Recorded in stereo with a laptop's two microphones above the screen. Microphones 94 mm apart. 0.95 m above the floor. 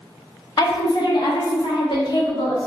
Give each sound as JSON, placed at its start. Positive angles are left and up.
{"t": 0.6, "sound": "a woman speaking", "side_deg": 45, "distance_m": 0.6}